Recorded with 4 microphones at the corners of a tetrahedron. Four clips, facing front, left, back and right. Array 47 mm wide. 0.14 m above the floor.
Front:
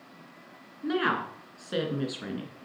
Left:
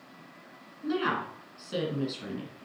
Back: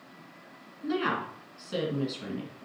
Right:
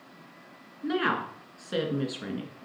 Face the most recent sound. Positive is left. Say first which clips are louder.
# right 2 dB, front 2 dB
turn(degrees=-45)